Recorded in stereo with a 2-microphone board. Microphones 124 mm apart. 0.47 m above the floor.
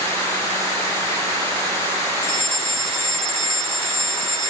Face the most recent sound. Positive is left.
turn(degrees=-50)  # may be behind; listen again after turning